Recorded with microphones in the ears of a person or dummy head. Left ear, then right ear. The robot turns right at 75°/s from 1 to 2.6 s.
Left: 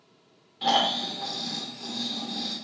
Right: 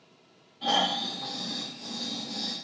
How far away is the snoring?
About 1.4 m.